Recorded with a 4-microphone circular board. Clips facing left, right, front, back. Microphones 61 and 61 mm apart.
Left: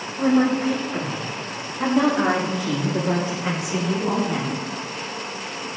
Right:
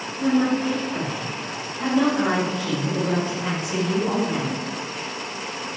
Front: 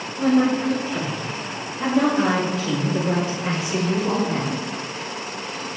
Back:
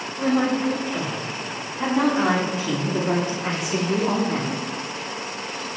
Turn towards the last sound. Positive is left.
turn(degrees=-165)